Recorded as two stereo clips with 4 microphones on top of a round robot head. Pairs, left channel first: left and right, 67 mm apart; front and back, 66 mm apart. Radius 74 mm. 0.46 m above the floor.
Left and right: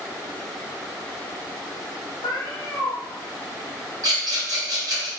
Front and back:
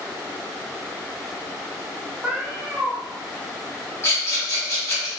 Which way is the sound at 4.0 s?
60° right.